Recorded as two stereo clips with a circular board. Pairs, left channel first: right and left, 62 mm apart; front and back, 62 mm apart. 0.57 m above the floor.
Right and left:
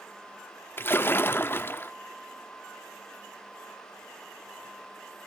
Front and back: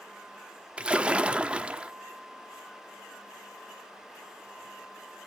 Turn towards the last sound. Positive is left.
turn(degrees=-115)